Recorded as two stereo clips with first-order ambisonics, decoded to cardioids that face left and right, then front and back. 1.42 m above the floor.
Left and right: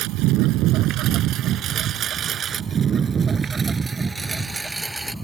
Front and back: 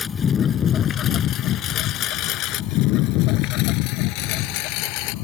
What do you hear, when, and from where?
0.0 s a lawn mower: 65° right; by 5.2 s 5° right